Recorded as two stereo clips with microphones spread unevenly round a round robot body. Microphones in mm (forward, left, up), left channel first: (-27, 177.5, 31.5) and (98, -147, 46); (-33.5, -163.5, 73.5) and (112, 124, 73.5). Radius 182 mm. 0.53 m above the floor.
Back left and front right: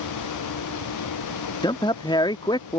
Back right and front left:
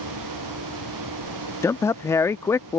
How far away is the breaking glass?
No breaking glass in this recording.